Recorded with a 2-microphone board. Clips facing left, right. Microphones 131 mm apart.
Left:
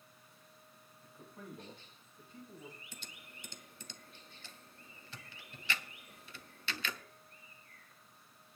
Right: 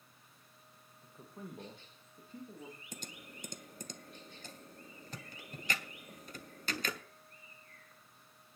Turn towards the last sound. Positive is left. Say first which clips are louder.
# right 6 dB
turn(degrees=-45)  # may be behind; listen again after turning